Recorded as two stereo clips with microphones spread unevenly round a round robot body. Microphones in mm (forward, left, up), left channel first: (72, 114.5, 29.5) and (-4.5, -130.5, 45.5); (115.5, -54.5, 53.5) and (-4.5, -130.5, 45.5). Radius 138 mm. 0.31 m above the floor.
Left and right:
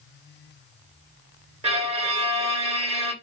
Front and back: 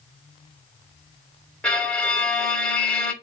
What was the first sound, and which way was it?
A violin, 45° right.